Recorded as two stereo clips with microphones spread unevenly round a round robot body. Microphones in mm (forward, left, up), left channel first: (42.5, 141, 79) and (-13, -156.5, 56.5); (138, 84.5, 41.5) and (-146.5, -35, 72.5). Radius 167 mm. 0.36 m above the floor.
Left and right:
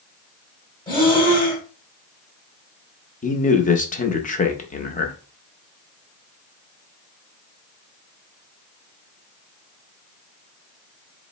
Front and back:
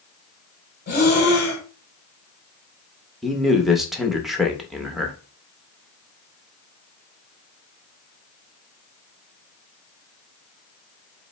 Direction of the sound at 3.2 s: 100° left.